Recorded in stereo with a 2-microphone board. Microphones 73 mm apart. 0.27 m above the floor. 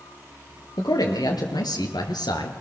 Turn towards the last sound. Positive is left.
turn(degrees=75)  # may be behind; listen again after turning